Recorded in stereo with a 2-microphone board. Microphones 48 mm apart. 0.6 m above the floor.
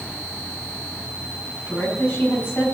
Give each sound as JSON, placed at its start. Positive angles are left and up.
{"t": 1.7, "sound": "a woman speaking", "side_deg": 55, "distance_m": 5.5}